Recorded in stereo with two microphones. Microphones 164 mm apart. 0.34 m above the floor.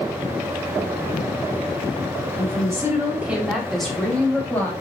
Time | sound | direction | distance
2.4 | a woman speaking | 25° right (ahead or behind) | 1.7 m